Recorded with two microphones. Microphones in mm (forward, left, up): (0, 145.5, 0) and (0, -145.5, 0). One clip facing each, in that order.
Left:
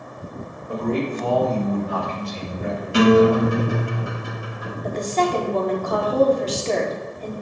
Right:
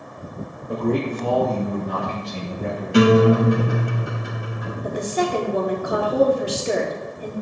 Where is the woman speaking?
10° right (ahead or behind), 1.2 m.